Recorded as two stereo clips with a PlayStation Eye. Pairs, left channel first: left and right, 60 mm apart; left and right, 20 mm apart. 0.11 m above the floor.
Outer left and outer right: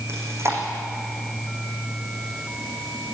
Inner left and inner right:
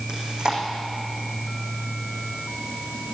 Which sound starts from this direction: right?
Chewing, at 0.1 s.